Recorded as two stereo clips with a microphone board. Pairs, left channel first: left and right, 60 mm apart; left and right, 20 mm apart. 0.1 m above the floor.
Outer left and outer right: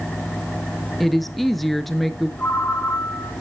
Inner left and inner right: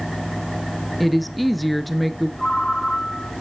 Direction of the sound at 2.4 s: 30° left (ahead or behind).